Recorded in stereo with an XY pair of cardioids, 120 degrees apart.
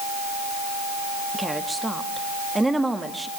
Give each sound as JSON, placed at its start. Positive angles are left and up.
{"t": 1.3, "sound": "a woman speaking", "azimuth_deg": -10, "distance_m": 2.0}